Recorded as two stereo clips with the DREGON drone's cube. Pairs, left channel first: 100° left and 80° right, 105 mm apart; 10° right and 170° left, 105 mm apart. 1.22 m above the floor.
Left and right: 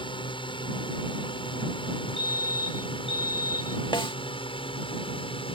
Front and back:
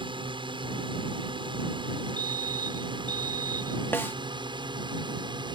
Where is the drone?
135° left; by 5.6 s 130° left.